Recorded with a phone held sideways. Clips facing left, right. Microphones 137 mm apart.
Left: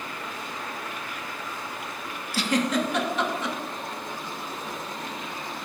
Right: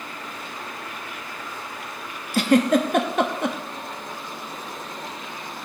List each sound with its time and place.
2.3 s a giggle: 50° right (ahead or behind), 1.0 m